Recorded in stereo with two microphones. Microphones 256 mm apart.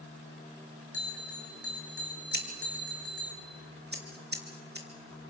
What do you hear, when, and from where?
0.9 s a bell: 60° left (ahead or behind), 4.5 m
2.3 s scissors: 40° right (ahead or behind), 3 m